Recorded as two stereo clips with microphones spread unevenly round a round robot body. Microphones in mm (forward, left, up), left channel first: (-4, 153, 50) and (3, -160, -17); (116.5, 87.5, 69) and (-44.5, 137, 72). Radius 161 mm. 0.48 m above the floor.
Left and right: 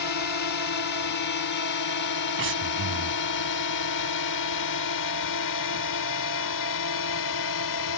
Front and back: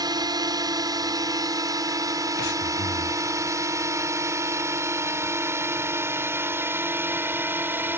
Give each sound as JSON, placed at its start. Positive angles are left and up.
{"t": 0.0, "sound": "a drone", "azimuth_deg": 105}
{"t": 2.4, "sound": "breathing", "azimuth_deg": -40}